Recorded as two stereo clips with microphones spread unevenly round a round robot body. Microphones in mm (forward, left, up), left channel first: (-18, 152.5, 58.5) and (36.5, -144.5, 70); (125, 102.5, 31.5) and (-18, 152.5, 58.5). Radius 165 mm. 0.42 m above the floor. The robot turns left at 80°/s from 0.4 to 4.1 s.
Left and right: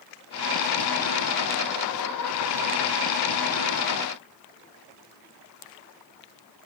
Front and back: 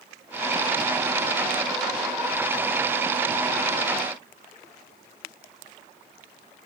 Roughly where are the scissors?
I don't hear scissors.